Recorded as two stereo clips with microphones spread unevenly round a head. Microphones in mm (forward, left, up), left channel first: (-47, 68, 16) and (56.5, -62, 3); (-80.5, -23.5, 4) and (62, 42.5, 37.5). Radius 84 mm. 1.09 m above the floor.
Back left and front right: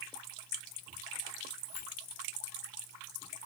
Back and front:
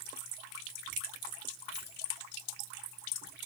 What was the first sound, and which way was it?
Keys jangling, 150° left.